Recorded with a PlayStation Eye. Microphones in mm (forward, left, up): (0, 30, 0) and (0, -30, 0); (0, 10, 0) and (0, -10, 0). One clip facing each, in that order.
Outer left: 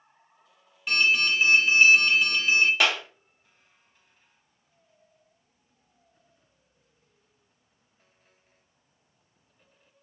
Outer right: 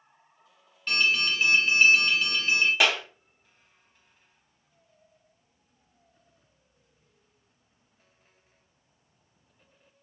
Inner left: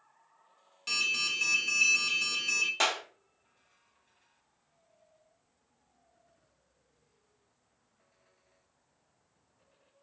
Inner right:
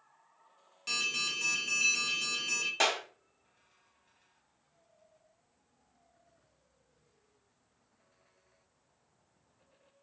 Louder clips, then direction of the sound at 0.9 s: Outer left 2 dB, inner left 3 dB; 5° left (ahead or behind).